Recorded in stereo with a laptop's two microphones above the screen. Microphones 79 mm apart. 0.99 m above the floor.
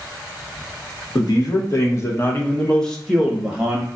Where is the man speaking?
55° left (ahead or behind), 1.1 m; by 3.9 s 15° right (ahead or behind), 1.1 m.